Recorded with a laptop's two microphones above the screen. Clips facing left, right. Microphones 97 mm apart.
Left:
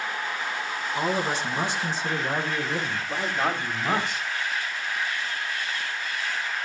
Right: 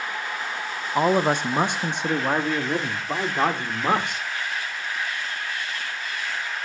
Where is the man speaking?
40° right (ahead or behind), 0.9 m; by 4.2 s 65° right (ahead or behind), 4 m.